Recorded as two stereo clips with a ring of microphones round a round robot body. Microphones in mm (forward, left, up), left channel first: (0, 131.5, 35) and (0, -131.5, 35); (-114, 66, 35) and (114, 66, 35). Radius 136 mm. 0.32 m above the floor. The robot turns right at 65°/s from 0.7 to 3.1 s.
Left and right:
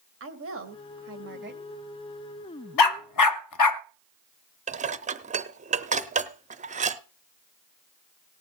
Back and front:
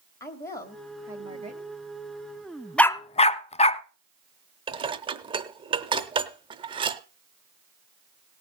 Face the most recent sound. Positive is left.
turn(degrees=-50)